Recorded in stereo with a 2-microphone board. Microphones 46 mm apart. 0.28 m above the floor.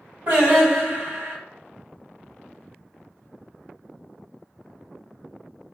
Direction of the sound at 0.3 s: 35° right (ahead or behind).